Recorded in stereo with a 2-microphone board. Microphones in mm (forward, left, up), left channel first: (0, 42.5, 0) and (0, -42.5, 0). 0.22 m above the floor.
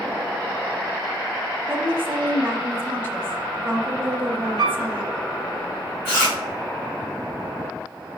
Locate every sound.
1.7 s a woman speaking: 25° right (ahead or behind), 1.0 m
4.6 s a piano: 50° left (ahead or behind), 3 m
6.0 s chewing: 30° left (ahead or behind), 3.5 m